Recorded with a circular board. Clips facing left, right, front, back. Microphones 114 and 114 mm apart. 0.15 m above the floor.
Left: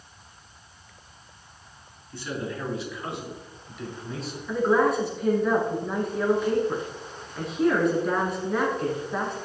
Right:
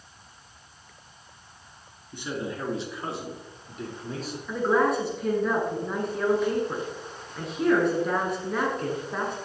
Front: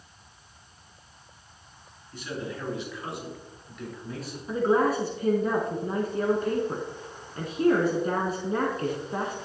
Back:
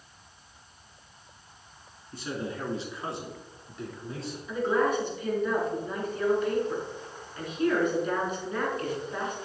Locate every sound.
2.1 s a man speaking: 150° right, 2 m; by 4.4 s 120° right, 3.5 m
4.5 s a woman speaking: straight ahead, 1.4 m